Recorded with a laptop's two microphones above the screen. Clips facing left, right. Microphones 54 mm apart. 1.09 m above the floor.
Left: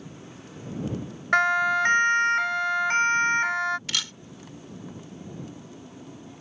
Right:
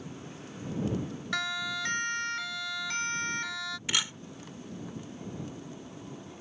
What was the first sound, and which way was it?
A siren, 45° left (ahead or behind).